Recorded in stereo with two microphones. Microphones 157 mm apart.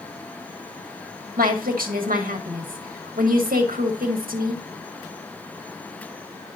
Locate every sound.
1.4 s a woman speaking: 75° right (ahead or behind), 1.5 m